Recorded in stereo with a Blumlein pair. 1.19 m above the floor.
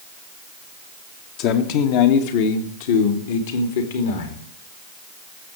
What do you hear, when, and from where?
1.4 s a man speaking: 40° left, 1.5 m; by 4.5 s 60° left, 3 m